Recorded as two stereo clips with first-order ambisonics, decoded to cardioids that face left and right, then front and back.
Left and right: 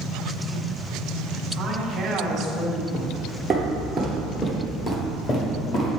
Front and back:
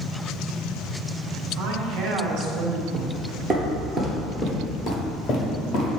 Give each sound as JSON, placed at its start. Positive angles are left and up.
{"t": 1.6, "sound": "a woman speaking", "azimuth_deg": -155, "distance_m": 1.4}
{"t": 2.9, "sound": "footsteps", "azimuth_deg": -145, "distance_m": 1.8}